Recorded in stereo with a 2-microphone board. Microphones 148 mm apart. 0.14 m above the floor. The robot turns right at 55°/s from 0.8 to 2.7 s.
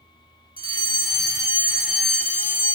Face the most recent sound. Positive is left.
turn(degrees=35)